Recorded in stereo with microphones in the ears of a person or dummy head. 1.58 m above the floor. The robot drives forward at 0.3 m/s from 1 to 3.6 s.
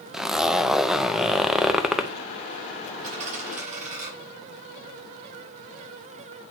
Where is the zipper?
Centre (ahead or behind), 0.7 m.